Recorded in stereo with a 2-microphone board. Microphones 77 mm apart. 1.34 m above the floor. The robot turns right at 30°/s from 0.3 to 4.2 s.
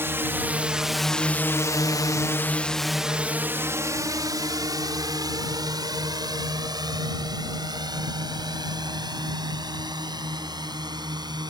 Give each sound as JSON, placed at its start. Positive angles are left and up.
{"t": 0.0, "sound": "a drone", "side_deg": -30}